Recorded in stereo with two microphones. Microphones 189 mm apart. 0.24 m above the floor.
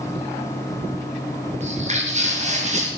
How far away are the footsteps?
About 8.5 m.